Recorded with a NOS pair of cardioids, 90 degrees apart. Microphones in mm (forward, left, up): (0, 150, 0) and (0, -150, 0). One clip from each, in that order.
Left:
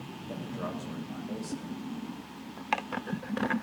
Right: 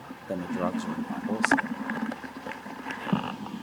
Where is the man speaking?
55° right, 1.2 m.